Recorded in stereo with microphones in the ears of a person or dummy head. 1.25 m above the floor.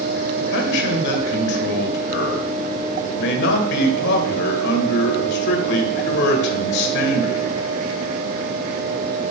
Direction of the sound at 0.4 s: 65° left (ahead or behind).